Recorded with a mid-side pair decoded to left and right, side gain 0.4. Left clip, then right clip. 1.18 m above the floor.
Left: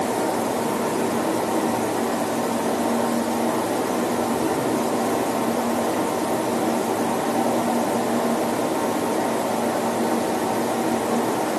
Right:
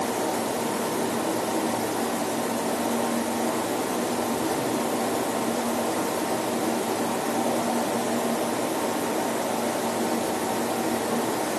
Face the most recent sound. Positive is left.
turn(degrees=35)